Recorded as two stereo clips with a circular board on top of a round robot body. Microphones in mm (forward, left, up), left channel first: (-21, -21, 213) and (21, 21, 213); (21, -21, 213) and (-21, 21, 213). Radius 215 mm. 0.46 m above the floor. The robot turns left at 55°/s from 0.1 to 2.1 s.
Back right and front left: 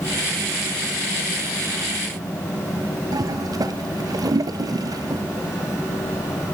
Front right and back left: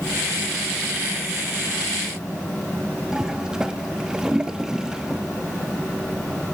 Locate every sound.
3.1 s a toilet flushing: 55° left, 0.9 m